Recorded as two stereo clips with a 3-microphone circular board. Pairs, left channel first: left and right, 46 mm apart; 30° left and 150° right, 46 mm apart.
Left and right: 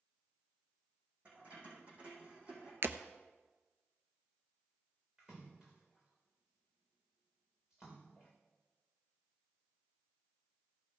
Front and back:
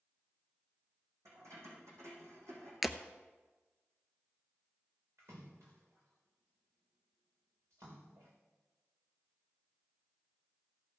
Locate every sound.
1.2 s keys jangling: 145° right, 6 m
2.8 s breaking glass: 65° right, 0.7 m
5.2 s a splash: 165° right, 3.5 m